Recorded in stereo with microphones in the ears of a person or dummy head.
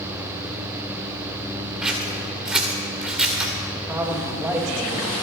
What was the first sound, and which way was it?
Scissors, 10° right (ahead or behind).